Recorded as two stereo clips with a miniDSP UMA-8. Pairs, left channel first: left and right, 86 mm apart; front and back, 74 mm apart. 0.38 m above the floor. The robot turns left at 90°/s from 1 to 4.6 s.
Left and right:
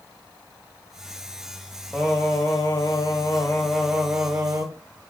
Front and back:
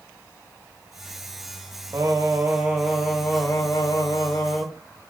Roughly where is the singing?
Behind.